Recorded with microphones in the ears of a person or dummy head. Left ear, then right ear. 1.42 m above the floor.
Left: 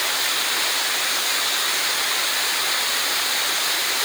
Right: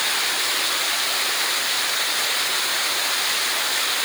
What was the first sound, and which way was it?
Only background noise.